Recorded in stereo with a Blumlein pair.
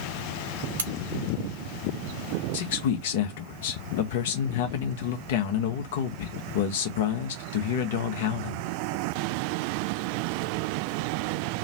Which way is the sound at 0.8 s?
65° right.